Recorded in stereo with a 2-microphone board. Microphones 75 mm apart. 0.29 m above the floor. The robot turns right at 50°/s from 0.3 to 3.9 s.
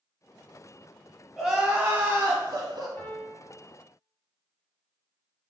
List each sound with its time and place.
1.4 s crying: 175° right, 0.7 m; by 2.9 s 100° right, 0.7 m
3.0 s a piano: 20° left (ahead or behind), 0.8 m; by 3.4 s centre (ahead or behind), 0.8 m